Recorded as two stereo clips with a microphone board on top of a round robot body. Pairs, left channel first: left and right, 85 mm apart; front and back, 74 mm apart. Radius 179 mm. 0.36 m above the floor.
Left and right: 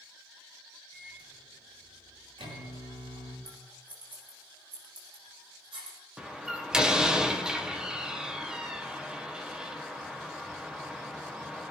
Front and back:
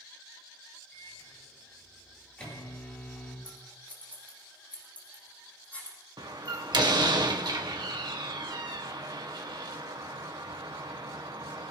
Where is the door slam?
170° right, 2.0 m.